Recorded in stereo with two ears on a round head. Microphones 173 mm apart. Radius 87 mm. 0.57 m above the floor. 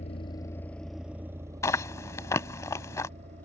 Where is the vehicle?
40° left (ahead or behind); by 3.5 s 40° right (ahead or behind).